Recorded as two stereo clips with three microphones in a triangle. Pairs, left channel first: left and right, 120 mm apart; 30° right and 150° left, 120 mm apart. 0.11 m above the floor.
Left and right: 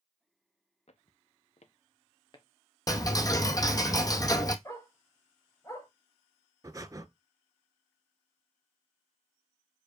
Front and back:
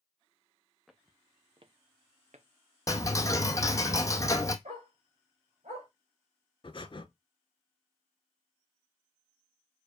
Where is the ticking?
30° left, 0.7 m.